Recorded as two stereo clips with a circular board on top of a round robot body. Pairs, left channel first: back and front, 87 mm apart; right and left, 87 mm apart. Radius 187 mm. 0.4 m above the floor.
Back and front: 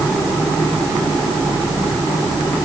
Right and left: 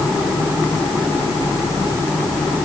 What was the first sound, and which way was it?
Only background noise.